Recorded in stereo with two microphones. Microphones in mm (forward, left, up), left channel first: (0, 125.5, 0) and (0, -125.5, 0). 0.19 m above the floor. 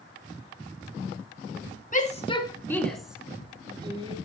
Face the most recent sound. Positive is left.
turn(degrees=-20)  # may be behind; listen again after turning